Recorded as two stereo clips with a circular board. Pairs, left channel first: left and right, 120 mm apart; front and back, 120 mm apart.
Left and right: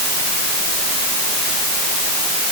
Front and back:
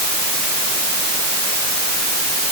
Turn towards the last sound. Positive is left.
No sound to turn to.